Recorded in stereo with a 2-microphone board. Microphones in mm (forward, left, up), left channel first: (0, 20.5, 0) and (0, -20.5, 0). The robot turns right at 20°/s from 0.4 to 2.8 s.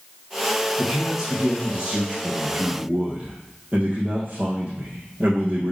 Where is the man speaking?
175° right, 2.5 m; by 5.7 s 135° right, 2.5 m.